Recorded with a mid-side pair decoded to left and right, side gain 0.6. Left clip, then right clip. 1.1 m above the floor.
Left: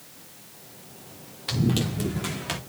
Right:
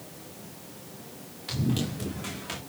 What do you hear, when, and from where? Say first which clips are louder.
1.5 s running footsteps: left 4 dB; 40° left, 5 m